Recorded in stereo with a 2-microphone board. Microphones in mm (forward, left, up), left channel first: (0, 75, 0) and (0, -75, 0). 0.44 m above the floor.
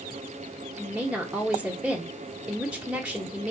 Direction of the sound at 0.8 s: 5° right (ahead or behind).